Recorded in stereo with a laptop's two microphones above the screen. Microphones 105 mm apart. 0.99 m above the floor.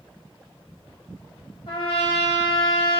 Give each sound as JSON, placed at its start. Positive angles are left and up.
{"t": 1.7, "sound": "a trumpet", "side_deg": 65, "distance_m": 2.5}